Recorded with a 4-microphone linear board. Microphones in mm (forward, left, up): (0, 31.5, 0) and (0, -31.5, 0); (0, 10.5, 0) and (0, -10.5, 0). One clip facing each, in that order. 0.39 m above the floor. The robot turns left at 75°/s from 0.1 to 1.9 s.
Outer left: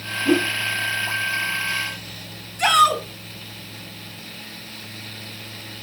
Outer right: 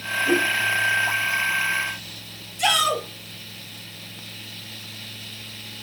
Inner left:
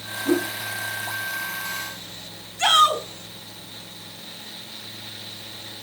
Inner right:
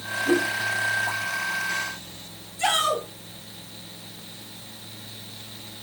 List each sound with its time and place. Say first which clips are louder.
0.2 s a whoosh: outer left 2 dB, even; 60° left (ahead or behind), 5.5 m; by 0.5 s 80° left, 5.5 m
2.6 s a shout: outer left 6 dB, inner left 6 dB; 45° left (ahead or behind), 3.5 m